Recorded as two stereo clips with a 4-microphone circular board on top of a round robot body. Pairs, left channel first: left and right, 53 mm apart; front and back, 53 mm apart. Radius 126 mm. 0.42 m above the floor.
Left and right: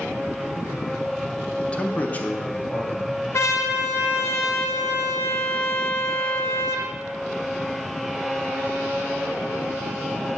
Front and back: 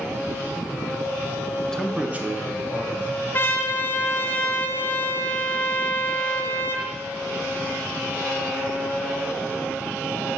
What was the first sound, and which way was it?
A man speaking, 40° left.